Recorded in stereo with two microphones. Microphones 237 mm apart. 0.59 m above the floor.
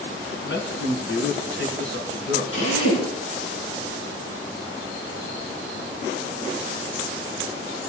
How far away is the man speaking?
About 5 m.